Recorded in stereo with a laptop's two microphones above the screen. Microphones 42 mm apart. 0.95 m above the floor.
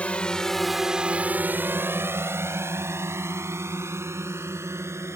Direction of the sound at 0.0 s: 30° left (ahead or behind).